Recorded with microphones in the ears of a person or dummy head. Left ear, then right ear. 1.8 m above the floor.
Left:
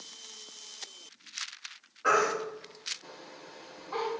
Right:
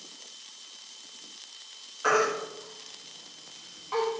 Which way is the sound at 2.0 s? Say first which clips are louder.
Right 1 dB; 60° right (ahead or behind).